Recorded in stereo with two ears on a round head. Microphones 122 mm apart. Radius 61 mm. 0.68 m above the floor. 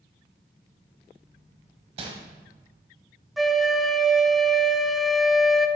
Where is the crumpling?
45° right (ahead or behind), 1.5 m.